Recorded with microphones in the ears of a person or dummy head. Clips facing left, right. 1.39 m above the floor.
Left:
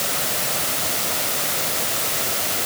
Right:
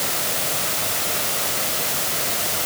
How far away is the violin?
No violin in this recording.